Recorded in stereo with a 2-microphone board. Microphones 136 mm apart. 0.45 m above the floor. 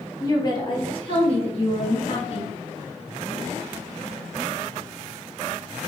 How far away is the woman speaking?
About 1.2 m.